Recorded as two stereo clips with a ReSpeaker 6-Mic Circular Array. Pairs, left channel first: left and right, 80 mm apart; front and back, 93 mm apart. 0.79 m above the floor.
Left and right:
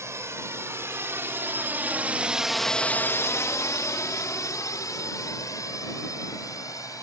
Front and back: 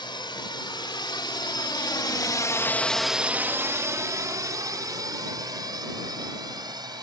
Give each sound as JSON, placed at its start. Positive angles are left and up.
{"t": 0.0, "sound": "a drone", "azimuth_deg": -35}